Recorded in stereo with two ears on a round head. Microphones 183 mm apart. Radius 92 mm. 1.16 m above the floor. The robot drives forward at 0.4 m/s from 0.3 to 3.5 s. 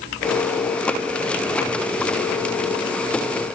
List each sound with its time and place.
Only background noise.